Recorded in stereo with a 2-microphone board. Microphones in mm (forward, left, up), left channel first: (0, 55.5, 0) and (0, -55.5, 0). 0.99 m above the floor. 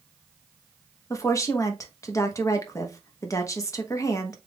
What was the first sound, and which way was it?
A woman speaking, 30° left (ahead or behind).